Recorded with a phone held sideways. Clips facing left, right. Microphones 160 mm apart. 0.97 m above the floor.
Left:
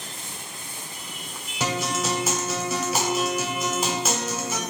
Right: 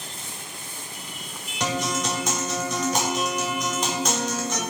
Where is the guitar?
5° left (ahead or behind), 0.8 m.